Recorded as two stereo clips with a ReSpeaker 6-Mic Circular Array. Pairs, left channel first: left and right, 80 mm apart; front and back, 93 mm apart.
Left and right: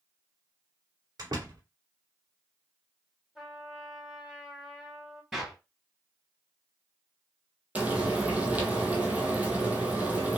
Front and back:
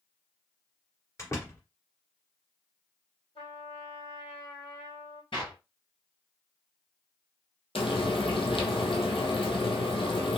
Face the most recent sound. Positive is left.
turn(degrees=-20)